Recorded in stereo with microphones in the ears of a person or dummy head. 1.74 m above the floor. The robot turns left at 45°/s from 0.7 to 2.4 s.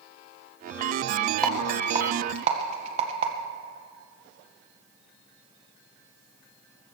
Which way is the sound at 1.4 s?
5° left (ahead or behind).